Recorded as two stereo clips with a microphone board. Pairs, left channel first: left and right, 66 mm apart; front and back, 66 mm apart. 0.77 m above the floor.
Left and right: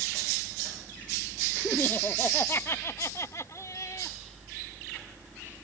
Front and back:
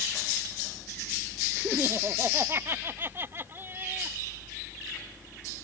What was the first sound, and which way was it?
Laughter, 145° left.